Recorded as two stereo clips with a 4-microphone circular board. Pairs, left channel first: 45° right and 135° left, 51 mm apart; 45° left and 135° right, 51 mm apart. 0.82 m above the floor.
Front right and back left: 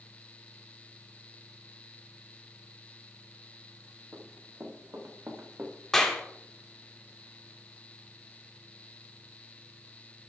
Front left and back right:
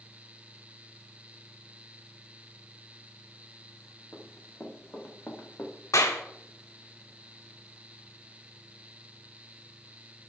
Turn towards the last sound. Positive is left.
turn(degrees=40)